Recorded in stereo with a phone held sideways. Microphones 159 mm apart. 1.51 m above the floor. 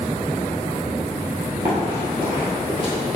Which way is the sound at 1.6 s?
20° right (ahead or behind).